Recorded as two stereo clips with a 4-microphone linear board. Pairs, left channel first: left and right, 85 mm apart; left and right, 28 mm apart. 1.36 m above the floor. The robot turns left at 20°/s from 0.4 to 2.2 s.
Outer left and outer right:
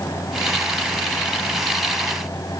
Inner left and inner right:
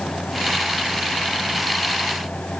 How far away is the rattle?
I don't hear a rattle.